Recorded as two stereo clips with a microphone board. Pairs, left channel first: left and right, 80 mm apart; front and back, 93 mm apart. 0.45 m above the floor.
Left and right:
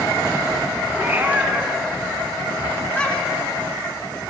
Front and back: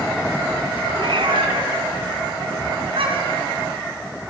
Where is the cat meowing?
155° right, 2.5 m; by 3.5 s 160° left, 3.5 m.